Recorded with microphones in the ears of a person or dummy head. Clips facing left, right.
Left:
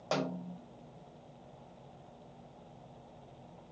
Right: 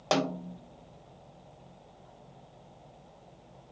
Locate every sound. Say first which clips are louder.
0.1 s a snare drum: right 6 dB; 75° right (ahead or behind), 0.8 m